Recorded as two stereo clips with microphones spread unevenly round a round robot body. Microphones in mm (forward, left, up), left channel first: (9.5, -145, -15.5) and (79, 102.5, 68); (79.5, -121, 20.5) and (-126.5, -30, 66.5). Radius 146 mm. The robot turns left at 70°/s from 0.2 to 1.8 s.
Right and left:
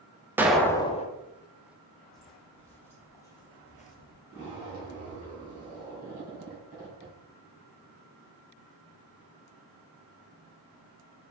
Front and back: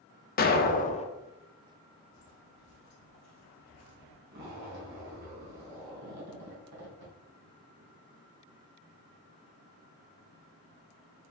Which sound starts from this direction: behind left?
A zipper, at 4.3 s.